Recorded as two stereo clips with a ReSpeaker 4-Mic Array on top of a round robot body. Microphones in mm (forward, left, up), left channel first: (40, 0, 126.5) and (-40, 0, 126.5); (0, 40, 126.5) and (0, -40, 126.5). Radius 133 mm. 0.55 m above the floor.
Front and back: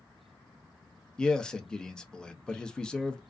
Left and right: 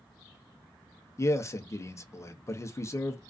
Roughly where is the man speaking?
Left.